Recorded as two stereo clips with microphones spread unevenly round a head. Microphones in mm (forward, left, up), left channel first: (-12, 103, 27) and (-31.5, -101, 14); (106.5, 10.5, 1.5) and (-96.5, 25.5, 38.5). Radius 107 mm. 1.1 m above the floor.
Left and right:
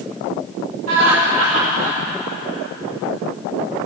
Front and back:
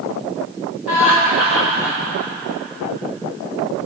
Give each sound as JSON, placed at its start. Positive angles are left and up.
{"t": 0.9, "sound": "laughter", "azimuth_deg": -95, "distance_m": 2.0}